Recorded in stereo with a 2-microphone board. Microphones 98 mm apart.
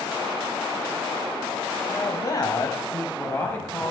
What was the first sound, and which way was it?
A man speaking, 40° left (ahead or behind).